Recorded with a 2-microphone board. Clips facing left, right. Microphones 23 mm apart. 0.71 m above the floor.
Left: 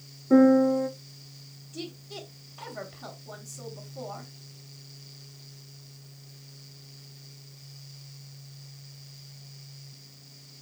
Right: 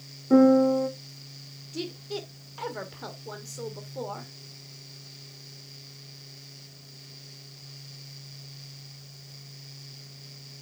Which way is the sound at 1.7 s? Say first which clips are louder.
Right 5 dB; 50° right (ahead or behind).